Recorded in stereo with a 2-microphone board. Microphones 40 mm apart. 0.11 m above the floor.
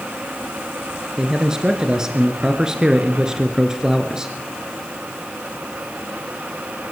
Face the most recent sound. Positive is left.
turn(degrees=-15)  # may be behind; listen again after turning